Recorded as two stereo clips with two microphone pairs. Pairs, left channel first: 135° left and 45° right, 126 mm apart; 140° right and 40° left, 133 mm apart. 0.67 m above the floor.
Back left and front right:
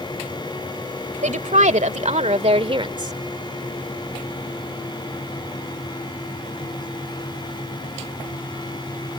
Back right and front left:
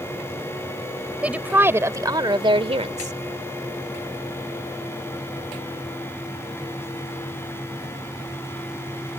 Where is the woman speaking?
45° right; by 3.1 s 15° left.